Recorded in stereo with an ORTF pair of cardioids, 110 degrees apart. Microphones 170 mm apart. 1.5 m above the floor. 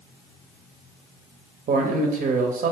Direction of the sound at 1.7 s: 45° right.